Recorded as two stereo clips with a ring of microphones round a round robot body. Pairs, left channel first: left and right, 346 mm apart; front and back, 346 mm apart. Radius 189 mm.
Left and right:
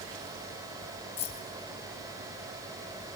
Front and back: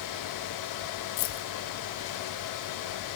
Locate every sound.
1.2 s keys jangling: 15° left, 2.5 m